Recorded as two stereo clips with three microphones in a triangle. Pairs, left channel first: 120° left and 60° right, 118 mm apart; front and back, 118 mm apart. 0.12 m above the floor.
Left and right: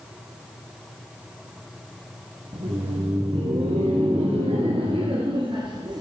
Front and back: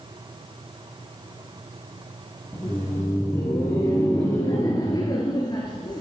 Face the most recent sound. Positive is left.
turn(degrees=-30)